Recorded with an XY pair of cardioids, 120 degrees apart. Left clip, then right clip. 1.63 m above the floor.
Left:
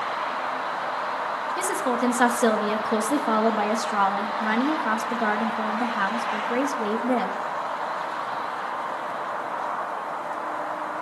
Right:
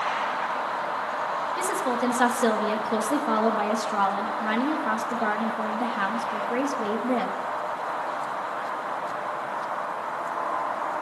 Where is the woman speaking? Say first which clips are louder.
Left 3 dB; 15° left, 3.5 m.